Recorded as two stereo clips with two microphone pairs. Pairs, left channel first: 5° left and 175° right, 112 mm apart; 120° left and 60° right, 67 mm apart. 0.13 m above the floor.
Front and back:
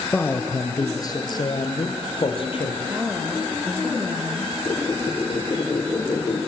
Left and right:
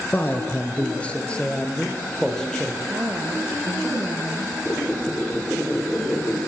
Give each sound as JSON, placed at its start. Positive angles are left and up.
{"t": 0.1, "sound": "a man speaking", "azimuth_deg": 80, "distance_m": 1.6}
{"t": 2.9, "sound": "a woman speaking", "azimuth_deg": -95, "distance_m": 2.5}
{"t": 4.7, "sound": "a squeak", "azimuth_deg": 55, "distance_m": 7.0}